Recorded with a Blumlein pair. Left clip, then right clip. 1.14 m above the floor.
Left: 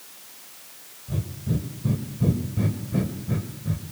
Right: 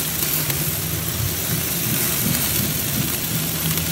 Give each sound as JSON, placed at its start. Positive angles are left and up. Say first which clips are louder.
{"t": 1.1, "sound": "breathing", "louder": "right 8 dB", "azimuth_deg": 65, "distance_m": 2.0}